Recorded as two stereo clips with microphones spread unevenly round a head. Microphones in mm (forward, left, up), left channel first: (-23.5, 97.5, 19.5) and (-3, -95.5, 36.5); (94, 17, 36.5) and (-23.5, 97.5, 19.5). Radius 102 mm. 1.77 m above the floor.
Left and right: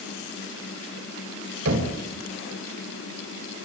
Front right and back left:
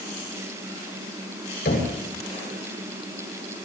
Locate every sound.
1.6 s knocking: 65° right, 8.5 m